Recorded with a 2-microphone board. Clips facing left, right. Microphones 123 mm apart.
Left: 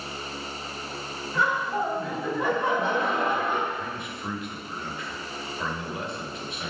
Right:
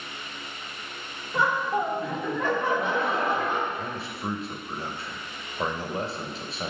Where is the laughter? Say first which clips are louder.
Right 1 dB; 20° right (ahead or behind), 1.2 m; by 3.6 s 55° left (ahead or behind), 1.0 m.